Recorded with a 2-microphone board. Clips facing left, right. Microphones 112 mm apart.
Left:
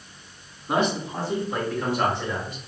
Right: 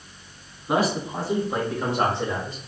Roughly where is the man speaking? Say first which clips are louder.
Right 1 dB; centre.